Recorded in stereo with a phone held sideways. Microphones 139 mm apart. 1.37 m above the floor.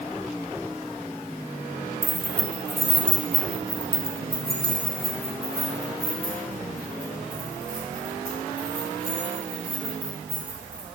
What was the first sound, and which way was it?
Keys jangling, 15° left (ahead or behind).